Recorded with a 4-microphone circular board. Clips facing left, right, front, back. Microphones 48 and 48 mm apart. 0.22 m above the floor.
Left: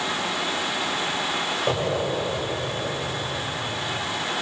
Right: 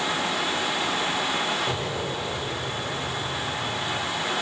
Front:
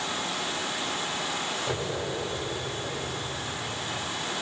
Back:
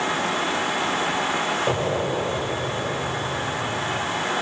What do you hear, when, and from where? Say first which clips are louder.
1.7 s an explosion: left 4 dB, back 8 dB; 150° left, 3 m